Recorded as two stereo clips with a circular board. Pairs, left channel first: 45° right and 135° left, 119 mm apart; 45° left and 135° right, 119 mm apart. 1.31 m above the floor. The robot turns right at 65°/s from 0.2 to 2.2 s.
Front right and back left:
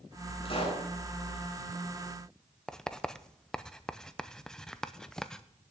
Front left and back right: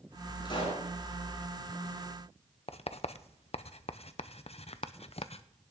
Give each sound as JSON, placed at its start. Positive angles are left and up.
{"t": 0.5, "sound": "a pop", "azimuth_deg": -10, "distance_m": 8.0}
{"t": 2.7, "sound": "writing", "azimuth_deg": 40, "distance_m": 0.6}